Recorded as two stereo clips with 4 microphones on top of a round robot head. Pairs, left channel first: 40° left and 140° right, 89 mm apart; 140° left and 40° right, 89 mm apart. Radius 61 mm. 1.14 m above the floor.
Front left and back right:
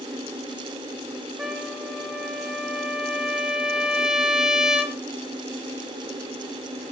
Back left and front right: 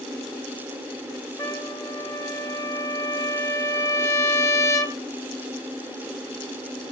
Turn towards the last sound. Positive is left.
turn(degrees=145)